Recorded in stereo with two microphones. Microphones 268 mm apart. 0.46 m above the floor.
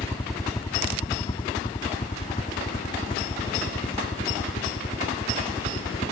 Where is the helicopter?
10° left (ahead or behind); by 6.1 s 30° left (ahead or behind).